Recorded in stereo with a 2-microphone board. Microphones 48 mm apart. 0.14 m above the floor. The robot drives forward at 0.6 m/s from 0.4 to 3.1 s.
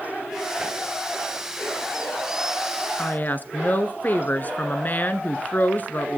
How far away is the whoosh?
About 2.5 m.